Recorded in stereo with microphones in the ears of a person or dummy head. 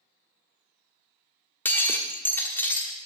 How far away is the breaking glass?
About 1.0 m.